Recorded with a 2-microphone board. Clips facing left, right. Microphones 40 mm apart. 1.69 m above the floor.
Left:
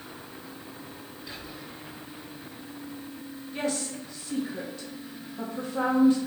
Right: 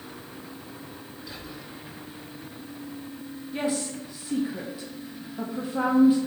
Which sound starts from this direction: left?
Whispering, at 1.3 s.